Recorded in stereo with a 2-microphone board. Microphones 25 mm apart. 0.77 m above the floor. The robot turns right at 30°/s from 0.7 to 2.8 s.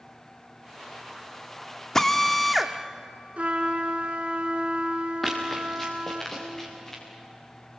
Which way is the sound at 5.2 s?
10° left (ahead or behind).